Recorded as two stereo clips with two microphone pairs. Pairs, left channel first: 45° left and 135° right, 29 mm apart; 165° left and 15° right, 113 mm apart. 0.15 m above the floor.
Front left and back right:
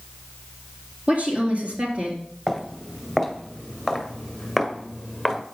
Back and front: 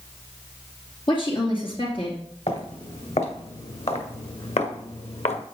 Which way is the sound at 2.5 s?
145° left.